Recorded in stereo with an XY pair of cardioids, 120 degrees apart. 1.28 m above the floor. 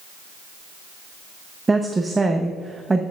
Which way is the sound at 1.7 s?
15° right.